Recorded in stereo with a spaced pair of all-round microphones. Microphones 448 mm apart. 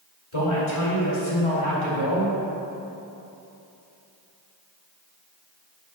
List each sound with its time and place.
0.3 s a man speaking: 75° left (ahead or behind), 2.5 m